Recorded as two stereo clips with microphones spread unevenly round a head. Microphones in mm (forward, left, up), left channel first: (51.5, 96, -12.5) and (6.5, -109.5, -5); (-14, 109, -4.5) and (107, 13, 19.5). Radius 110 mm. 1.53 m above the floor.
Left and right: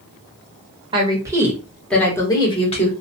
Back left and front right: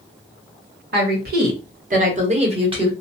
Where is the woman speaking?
35° right, 1.2 m; by 2.9 s 20° left, 1.2 m.